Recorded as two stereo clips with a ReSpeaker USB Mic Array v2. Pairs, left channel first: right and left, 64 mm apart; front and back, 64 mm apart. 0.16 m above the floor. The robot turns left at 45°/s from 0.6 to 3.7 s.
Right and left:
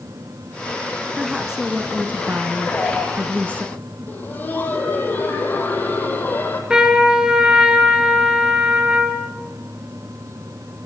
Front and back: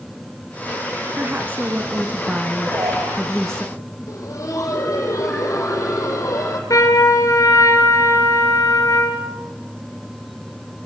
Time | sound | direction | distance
1.2 | a woman speaking | 175° left | 1.4 m
2.6 | a man speaking | 150° right | 9.5 m
4.1 | laughter | 30° right | 6.5 m
6.7 | a trumpet | 15° left | 3 m